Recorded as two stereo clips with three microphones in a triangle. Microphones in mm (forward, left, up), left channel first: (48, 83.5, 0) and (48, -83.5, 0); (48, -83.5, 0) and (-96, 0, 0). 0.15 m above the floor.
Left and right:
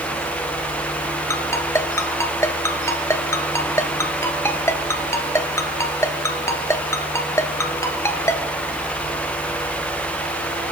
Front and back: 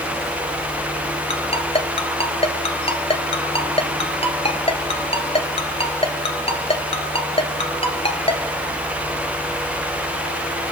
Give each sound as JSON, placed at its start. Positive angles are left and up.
{"t": 1.3, "sound": "a ringtone", "azimuth_deg": 20, "distance_m": 0.9}